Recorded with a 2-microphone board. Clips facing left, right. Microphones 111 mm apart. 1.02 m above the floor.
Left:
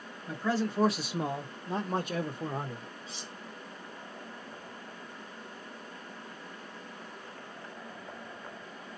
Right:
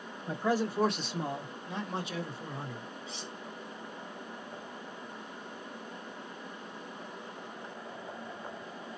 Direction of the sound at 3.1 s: Centre (ahead or behind).